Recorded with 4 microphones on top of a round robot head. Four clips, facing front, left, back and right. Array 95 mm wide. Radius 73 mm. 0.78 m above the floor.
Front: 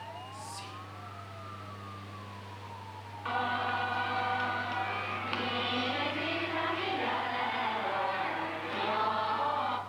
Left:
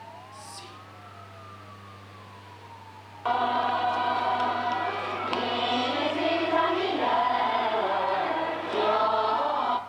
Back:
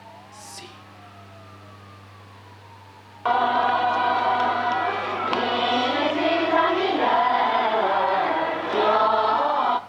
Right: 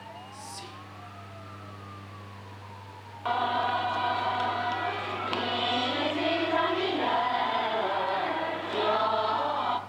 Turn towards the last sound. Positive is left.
turn(degrees=165)